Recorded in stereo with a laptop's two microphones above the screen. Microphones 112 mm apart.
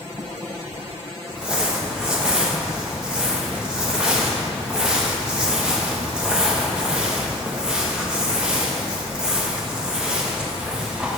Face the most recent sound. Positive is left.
turn(degrees=-10)  # may be behind; listen again after turning